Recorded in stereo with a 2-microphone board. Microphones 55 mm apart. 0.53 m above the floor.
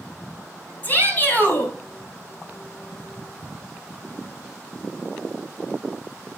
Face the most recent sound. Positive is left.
turn(degrees=30)  # may be behind; listen again after turning